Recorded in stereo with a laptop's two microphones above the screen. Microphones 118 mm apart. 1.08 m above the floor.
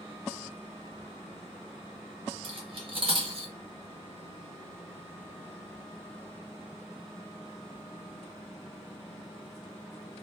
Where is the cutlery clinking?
45° right (ahead or behind), 0.8 m.